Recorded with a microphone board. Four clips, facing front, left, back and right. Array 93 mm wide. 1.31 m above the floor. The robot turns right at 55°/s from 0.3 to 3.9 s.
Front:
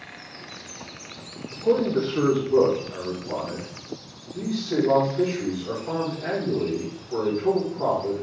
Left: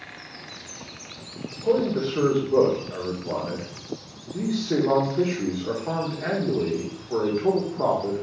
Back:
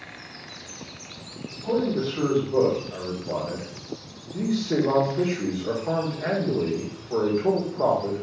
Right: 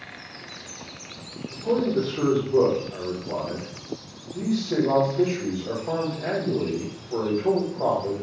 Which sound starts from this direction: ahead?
A man speaking, at 1.5 s.